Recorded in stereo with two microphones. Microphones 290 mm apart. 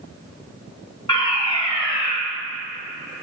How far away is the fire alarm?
About 3 m.